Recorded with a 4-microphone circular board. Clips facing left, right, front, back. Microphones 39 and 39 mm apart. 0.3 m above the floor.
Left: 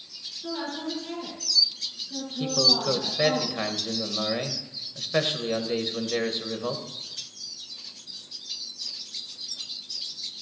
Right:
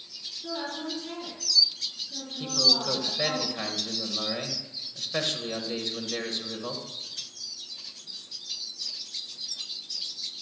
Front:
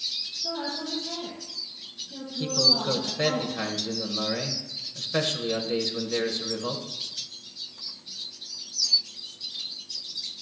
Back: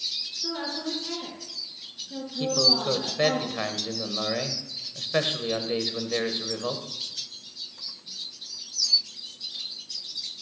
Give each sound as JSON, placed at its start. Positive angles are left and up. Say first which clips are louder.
{"t": 0.4, "sound": "a woman speaking", "louder": "left 2 dB, back 1 dB", "azimuth_deg": 170, "distance_m": 4.5}
{"t": 2.4, "sound": "a man speaking", "louder": "left 2 dB, back 1 dB", "azimuth_deg": 135, "distance_m": 1.2}